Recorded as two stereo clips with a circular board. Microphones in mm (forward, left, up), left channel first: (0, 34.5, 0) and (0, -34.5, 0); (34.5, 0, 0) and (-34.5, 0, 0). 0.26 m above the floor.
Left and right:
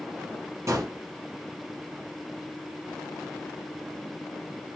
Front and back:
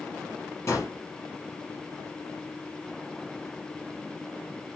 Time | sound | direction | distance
0.7 | a gunshot | 50° right | 3.5 m